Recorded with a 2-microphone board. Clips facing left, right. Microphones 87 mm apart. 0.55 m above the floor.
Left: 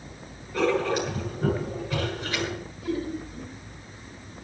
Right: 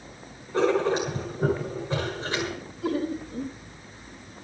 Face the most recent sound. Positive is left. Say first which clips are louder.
# right 3 dB
turn(degrees=-65)  # may be behind; listen again after turning